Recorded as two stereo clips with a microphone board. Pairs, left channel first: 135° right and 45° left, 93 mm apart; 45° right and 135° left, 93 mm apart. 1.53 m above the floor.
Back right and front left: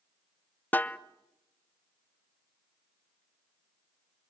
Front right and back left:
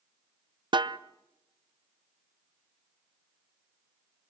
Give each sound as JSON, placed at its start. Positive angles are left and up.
{"t": 0.7, "sound": "a snare drum", "azimuth_deg": 155, "distance_m": 0.6}